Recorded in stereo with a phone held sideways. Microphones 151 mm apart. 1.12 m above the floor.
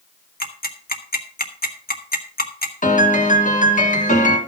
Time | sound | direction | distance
0.4 | ticking | 80° left | 1.6 m
2.8 | a piano | 60° left (ahead or behind) | 2.5 m